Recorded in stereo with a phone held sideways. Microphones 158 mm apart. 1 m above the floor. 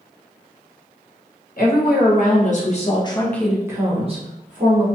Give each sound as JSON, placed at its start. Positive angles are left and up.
{"t": 1.6, "sound": "a woman speaking", "side_deg": 65, "distance_m": 1.2}